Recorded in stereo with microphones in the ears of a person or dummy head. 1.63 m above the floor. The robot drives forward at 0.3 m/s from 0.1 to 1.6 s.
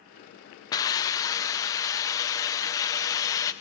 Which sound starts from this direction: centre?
A hiss, at 0.7 s.